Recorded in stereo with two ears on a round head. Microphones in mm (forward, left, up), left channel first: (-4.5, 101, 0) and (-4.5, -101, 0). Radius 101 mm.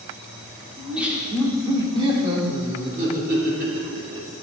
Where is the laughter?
Centre (ahead or behind), 1.9 m; by 4.3 s 50° right (ahead or behind), 2.5 m.